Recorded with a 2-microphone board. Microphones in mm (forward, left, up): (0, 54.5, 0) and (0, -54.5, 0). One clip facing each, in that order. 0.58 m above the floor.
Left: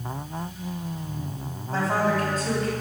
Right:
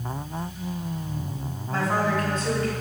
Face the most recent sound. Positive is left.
turn(degrees=40)  # may be behind; listen again after turning